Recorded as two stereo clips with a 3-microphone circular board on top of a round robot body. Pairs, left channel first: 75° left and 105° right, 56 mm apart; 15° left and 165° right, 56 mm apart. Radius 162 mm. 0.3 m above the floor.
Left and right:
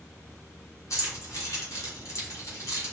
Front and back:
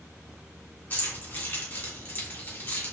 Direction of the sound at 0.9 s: 70° left.